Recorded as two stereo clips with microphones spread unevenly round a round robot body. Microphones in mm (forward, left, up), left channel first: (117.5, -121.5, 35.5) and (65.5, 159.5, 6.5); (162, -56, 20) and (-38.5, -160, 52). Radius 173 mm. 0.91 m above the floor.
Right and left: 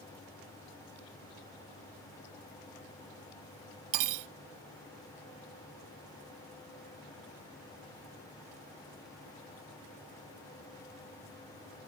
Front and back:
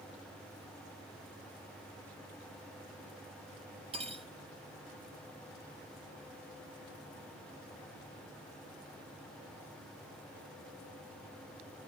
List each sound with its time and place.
3.9 s cutlery clinking: 135° left